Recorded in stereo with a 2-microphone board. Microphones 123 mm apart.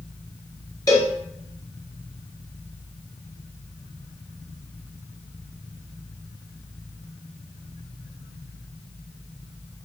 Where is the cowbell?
30° left (ahead or behind), 1.6 m.